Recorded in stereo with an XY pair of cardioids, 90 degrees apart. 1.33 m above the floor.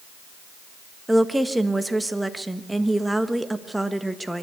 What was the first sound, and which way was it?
A woman speaking, 10° right.